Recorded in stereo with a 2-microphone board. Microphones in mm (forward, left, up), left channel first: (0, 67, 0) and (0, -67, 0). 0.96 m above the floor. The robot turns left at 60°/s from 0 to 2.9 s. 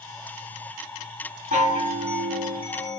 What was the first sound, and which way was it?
A chime, 105° right.